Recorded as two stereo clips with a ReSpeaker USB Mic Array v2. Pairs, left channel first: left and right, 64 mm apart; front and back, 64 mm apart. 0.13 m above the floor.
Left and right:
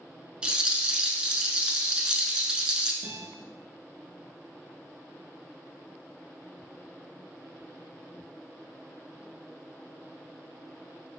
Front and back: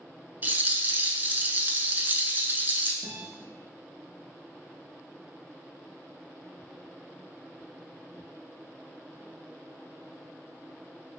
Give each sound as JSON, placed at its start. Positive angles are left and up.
{"t": 0.4, "sound": "a rattle", "azimuth_deg": -155, "distance_m": 0.6}
{"t": 3.0, "sound": "a guitar", "azimuth_deg": -115, "distance_m": 1.2}